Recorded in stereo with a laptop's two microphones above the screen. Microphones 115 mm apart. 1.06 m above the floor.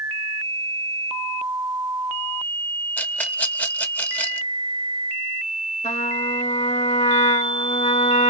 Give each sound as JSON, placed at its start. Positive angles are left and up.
{"t": 3.0, "sound": "a rattle", "side_deg": 15, "distance_m": 0.7}
{"t": 5.8, "sound": "a trumpet", "side_deg": 75, "distance_m": 2.5}